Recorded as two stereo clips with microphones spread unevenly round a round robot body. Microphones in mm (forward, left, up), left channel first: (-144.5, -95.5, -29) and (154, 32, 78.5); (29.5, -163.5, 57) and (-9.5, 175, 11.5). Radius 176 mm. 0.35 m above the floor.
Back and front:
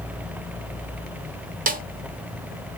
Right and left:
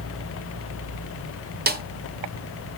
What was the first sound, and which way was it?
A snare drum, 100° left.